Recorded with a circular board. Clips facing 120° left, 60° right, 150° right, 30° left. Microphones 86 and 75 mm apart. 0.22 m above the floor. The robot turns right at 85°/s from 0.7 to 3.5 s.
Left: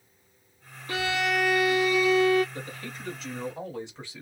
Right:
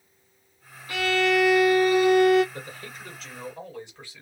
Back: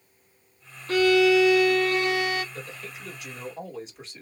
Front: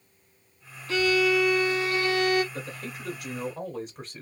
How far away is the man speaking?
About 1.8 m.